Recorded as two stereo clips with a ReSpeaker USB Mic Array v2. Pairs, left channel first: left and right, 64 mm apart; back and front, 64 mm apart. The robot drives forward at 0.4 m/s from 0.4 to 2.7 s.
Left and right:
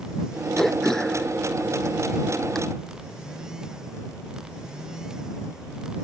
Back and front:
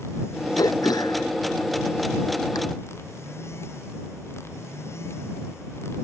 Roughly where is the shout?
I don't hear a shout.